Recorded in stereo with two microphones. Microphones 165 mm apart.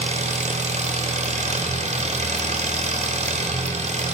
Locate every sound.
0.0 s an engine running: 45° right (ahead or behind), 0.7 m